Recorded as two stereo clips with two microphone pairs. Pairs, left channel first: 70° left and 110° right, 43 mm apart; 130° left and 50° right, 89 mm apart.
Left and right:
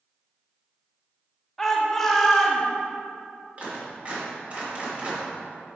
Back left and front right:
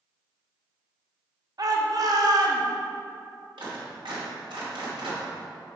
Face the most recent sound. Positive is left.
turn(degrees=-55)